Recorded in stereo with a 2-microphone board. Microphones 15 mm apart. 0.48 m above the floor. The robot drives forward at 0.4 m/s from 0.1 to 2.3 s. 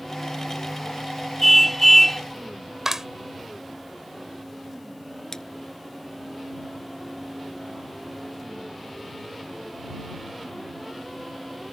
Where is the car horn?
15° left (ahead or behind).